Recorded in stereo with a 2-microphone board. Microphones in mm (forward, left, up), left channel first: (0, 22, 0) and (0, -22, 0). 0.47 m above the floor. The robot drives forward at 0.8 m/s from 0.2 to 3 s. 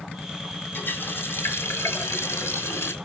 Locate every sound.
0.7 s a running tap: 55° left (ahead or behind), 2 m; by 2.9 s 70° left (ahead or behind), 1.9 m